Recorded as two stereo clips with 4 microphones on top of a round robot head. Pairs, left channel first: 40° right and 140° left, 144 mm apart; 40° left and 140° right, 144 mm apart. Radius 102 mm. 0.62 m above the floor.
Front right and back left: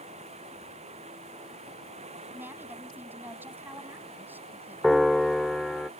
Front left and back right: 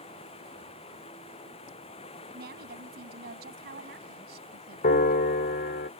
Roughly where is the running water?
Left.